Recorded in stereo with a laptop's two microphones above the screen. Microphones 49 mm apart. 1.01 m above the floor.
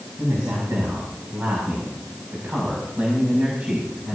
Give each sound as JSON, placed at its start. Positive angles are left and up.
{"t": 0.2, "sound": "a man speaking", "side_deg": -60, "distance_m": 7.0}